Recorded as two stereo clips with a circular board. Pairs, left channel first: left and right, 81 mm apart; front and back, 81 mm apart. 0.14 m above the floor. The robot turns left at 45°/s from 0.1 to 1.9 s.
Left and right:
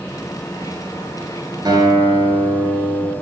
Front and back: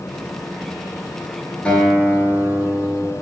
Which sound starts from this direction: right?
A guitar, at 1.6 s.